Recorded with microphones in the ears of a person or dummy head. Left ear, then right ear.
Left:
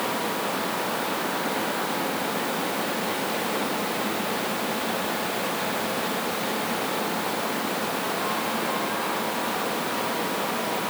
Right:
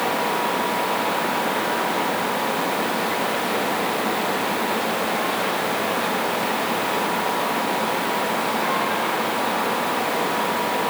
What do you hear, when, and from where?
Only background noise.